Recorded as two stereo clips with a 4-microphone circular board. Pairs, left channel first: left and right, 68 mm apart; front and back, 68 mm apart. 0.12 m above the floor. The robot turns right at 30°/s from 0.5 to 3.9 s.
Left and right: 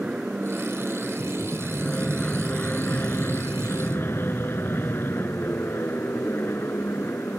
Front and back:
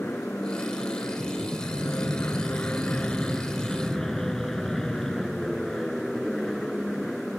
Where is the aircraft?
25° right; by 7.4 s 80° left.